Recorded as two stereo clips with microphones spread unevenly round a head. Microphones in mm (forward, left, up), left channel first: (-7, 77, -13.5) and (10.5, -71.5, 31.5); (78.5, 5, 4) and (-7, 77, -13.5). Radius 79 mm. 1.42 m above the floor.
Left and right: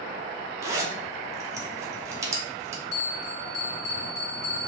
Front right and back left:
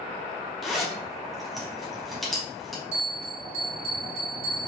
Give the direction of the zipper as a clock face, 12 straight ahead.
4 o'clock.